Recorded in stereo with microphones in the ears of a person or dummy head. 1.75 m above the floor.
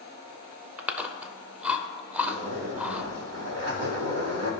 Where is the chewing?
10° right (ahead or behind), 0.6 m.